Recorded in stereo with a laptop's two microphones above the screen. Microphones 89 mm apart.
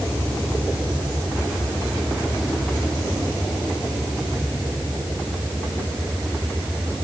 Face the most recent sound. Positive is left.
No sound to turn to.